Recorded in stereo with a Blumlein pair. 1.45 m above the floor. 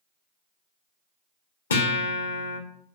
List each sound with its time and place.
1.7 s a guitar: 65° left, 0.7 m